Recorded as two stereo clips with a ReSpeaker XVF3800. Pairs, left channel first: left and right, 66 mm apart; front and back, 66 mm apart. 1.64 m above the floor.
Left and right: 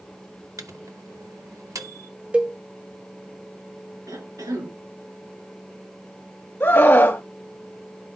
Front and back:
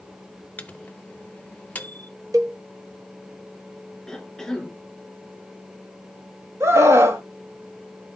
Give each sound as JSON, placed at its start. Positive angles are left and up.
{"t": 0.6, "sound": "a microwave", "azimuth_deg": -70, "distance_m": 0.6}
{"t": 2.3, "sound": "a cowbell", "azimuth_deg": -160, "distance_m": 0.8}
{"t": 4.1, "sound": "a cough", "azimuth_deg": -85, "distance_m": 3.0}
{"t": 6.6, "sound": "a scream", "azimuth_deg": 140, "distance_m": 0.9}